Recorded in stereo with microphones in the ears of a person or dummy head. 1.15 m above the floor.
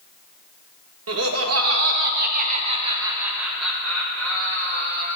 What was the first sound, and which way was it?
Laughter, 80° right.